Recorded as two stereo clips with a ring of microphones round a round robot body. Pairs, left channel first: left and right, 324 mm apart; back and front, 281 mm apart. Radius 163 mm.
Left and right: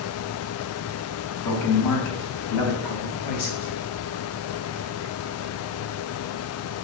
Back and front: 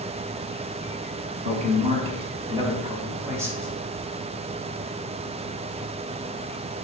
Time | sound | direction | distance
1.4 | a man speaking | 65° left | 3.5 m